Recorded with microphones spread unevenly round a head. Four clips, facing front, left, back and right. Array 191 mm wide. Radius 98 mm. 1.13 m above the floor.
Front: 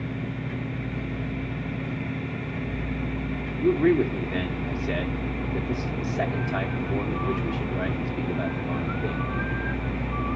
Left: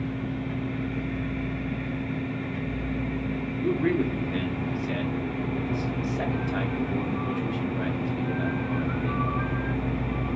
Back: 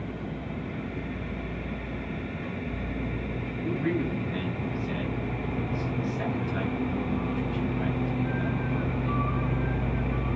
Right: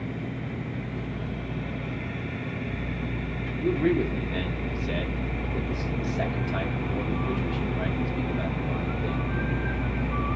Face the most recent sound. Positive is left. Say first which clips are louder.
# right 1 dB, front 8 dB
turn(degrees=-15)